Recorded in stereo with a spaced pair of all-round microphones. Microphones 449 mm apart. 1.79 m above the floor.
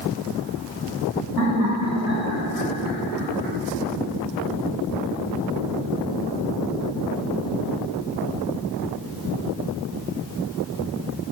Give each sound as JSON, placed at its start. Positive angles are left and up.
{"t": 1.4, "sound": "laughter", "side_deg": -40, "distance_m": 1.6}